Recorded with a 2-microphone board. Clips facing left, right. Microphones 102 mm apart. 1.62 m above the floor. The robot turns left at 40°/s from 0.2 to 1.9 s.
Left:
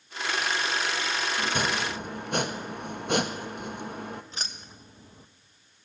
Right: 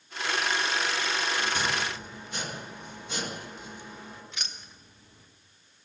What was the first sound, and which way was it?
Chopping, 55° left (ahead or behind).